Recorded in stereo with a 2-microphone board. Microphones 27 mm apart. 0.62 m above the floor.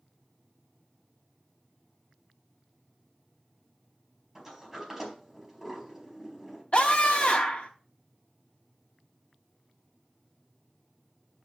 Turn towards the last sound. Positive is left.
turn(degrees=50)  # may be behind; listen again after turning